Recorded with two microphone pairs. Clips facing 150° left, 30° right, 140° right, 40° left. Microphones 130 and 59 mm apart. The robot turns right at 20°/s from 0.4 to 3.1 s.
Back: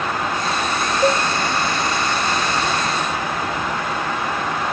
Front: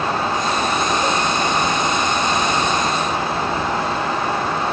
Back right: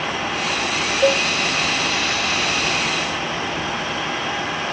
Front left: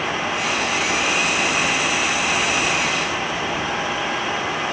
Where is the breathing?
I don't hear breathing.